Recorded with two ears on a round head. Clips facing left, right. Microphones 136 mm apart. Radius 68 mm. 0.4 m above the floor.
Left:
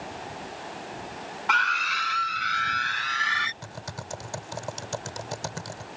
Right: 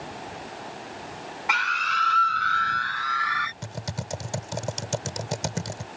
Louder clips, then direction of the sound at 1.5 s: Even; 10° right (ahead or behind).